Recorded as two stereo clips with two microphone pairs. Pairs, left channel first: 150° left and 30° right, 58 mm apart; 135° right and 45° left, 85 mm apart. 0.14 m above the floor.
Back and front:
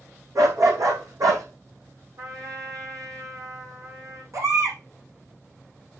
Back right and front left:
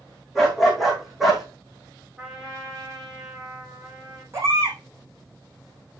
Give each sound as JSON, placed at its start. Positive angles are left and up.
{"t": 0.3, "sound": "a dog barking", "azimuth_deg": -40, "distance_m": 4.0}
{"t": 2.2, "sound": "a trumpet", "azimuth_deg": -35, "distance_m": 5.0}
{"t": 4.3, "sound": "a baby crying", "azimuth_deg": -10, "distance_m": 4.0}